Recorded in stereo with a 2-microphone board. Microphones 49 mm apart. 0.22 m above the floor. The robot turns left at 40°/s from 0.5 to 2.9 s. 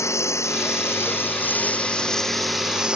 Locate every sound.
0.0 s a lawn mower: 80° left; by 3.0 s 20° right